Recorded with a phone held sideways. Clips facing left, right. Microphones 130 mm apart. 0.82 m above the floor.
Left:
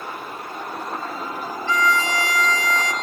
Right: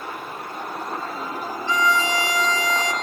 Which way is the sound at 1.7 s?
20° right (ahead or behind).